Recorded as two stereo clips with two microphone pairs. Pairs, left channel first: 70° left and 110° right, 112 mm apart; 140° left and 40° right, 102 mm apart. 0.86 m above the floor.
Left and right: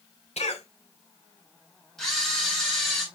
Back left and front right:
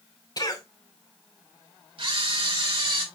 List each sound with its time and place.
0.4 s a cough: 90° left, 2.5 m
2.0 s a camera shutter: 15° right, 4.5 m